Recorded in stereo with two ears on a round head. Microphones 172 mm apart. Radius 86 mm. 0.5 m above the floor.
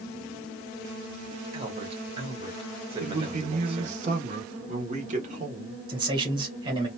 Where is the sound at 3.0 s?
40° right (ahead or behind), 1.5 m.